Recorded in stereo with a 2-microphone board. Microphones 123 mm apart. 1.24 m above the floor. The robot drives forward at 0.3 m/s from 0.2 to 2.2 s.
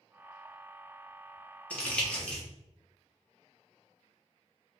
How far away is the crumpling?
About 0.7 m.